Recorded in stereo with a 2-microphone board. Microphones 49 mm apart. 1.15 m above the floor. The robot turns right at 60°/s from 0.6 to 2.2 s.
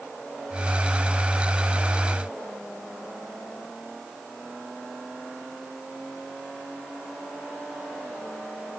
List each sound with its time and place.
Only background noise.